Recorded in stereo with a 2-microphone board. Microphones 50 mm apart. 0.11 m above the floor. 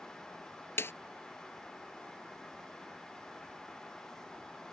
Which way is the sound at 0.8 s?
60° left (ahead or behind).